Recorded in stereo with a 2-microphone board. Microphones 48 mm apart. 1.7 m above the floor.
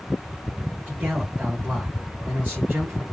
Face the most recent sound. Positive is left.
turn(degrees=-35)  # may be behind; listen again after turning